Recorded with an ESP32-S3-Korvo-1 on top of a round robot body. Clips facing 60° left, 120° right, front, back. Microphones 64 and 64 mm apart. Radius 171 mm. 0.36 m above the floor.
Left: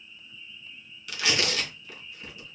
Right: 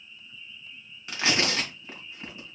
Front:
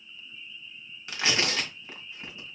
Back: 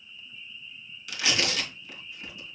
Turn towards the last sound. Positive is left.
turn(degrees=-60)